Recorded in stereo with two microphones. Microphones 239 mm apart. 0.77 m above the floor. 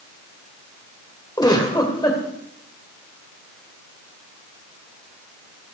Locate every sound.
1.4 s a giggle: 15° left (ahead or behind), 1.8 m